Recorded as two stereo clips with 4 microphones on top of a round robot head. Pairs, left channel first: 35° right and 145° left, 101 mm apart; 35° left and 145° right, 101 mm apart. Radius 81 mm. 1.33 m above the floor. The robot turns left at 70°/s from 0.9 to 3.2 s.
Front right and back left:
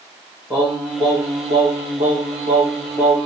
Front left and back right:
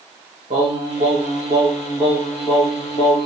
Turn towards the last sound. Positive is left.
turn(degrees=65)